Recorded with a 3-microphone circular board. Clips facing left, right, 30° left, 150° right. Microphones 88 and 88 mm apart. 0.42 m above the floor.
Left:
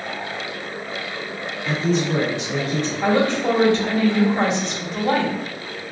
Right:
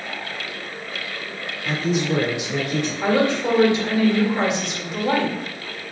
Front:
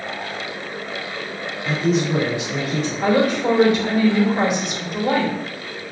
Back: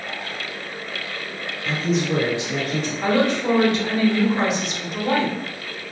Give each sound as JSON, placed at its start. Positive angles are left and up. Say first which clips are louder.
{"t": 1.6, "sound": "a man speaking", "louder": "left 1 dB, front 3 dB", "azimuth_deg": -25, "distance_m": 1.2}
{"t": 3.0, "sound": "a woman speaking", "louder": "left 1 dB, front 2 dB", "azimuth_deg": -40, "distance_m": 1.1}